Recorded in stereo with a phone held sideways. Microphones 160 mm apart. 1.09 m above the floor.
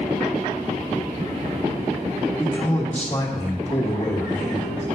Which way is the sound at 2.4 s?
15° left (ahead or behind).